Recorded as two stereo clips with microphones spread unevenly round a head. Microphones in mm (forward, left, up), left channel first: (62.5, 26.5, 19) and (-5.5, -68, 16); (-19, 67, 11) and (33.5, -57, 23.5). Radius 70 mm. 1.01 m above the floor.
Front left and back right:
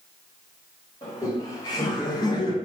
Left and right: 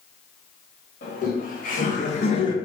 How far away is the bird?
I don't hear a bird.